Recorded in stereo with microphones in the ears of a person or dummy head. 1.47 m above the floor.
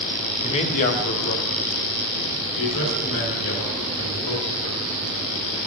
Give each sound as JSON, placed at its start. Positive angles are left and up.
{"t": 0.4, "sound": "a man speaking", "side_deg": 30, "distance_m": 0.8}